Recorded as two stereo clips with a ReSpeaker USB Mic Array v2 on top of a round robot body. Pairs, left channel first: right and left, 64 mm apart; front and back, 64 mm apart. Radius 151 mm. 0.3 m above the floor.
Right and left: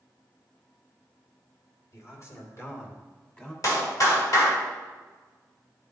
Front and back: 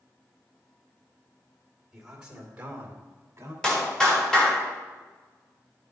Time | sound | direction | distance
1.9 | a man speaking | 95° right | 2.5 m
3.6 | a clap | 75° right | 2.5 m